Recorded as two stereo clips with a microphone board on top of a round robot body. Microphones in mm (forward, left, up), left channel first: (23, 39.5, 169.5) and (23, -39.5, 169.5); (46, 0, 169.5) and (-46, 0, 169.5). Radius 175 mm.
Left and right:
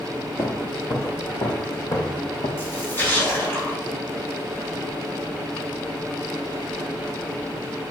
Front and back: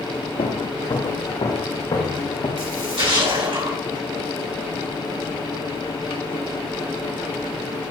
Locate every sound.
0.4 s footsteps: 25° left, 1.1 m; by 2.5 s 55° left, 2.5 m
2.6 s a splash: 150° left, 4 m